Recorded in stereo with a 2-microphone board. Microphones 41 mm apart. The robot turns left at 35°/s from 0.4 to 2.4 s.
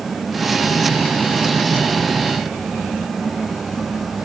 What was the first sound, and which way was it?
Only background noise.